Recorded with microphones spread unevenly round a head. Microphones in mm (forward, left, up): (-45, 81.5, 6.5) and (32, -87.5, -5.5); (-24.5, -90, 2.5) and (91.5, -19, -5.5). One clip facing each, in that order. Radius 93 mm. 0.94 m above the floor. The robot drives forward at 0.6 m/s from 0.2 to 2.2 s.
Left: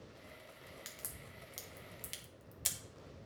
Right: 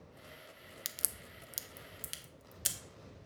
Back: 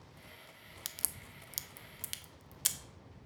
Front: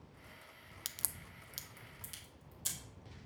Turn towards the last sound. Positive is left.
turn(degrees=-145)